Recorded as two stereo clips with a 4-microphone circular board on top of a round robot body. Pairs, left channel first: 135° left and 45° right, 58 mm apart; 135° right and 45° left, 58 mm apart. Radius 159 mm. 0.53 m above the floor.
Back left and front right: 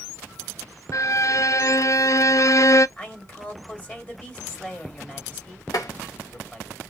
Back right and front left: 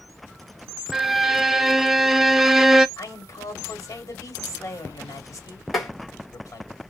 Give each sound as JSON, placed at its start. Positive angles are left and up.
{"t": 0.9, "sound": "a violin", "azimuth_deg": 130, "distance_m": 0.5}
{"t": 3.0, "sound": "a man speaking", "azimuth_deg": -160, "distance_m": 1.9}
{"t": 5.7, "sound": "tapping", "azimuth_deg": 140, "distance_m": 1.6}